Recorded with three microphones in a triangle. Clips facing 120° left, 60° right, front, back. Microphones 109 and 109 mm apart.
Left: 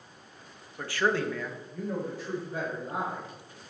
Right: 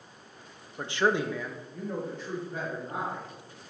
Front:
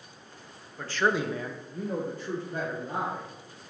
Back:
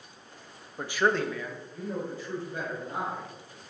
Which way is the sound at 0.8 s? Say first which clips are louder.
Right 1 dB, back 1 dB; 120° right.